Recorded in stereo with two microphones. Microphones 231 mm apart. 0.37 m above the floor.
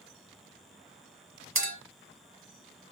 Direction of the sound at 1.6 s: 60° right (ahead or behind).